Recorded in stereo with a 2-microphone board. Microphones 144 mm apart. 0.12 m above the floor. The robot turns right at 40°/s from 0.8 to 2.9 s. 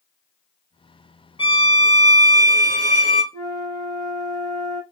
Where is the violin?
40° left, 0.7 m; by 3.2 s 100° left, 0.7 m.